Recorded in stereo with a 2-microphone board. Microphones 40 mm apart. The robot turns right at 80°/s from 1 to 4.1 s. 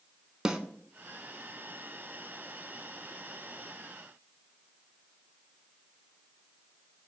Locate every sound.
0.5 s a snare drum: 15° right (ahead or behind), 0.7 m